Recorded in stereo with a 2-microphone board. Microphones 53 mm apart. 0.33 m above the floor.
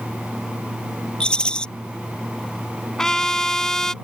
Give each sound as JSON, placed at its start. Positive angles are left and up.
{"t": 1.2, "sound": "a rattle", "side_deg": 15}
{"t": 3.0, "sound": "a trumpet", "side_deg": 10}